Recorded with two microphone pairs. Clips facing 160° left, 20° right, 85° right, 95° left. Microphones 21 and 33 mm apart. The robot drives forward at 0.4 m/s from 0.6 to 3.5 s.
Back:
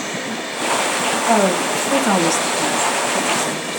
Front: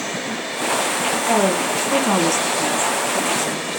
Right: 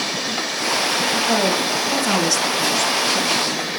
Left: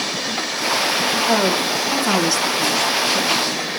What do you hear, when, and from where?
1.3 s a woman speaking: 175° left, 3.5 m